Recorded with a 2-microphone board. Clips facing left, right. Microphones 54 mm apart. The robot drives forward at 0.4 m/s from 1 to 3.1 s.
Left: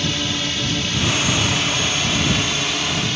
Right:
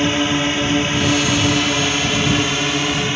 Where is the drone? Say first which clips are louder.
Right 6 dB; 30° right (ahead or behind).